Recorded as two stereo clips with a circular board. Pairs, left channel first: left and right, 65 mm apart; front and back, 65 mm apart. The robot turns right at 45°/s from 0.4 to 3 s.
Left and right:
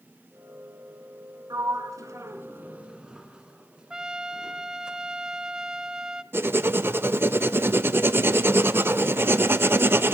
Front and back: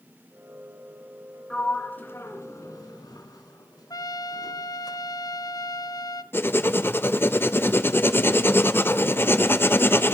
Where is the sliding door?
80° right, 1.3 m; by 4.9 s 15° right, 1.3 m.